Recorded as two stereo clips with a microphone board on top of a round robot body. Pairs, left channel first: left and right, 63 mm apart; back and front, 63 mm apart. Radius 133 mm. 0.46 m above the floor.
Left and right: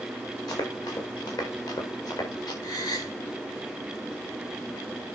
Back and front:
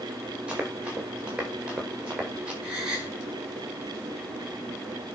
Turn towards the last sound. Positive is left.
turn(degrees=75)